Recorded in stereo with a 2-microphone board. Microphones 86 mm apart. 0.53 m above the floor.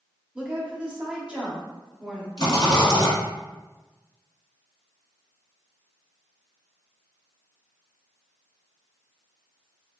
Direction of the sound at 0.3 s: 10° right (ahead or behind).